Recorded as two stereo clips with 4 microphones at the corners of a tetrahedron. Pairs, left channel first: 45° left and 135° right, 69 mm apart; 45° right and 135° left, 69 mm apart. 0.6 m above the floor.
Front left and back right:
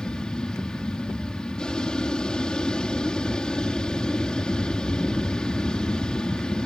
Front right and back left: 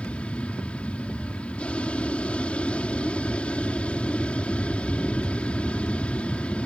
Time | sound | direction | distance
0.0 | an aircraft | 10° right | ?